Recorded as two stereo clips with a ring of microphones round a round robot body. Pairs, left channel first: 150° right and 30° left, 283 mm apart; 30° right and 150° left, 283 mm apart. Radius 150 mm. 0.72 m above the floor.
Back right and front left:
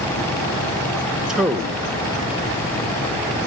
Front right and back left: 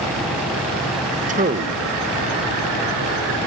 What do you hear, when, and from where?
1.3 s a man speaking: 115° left, 1.0 m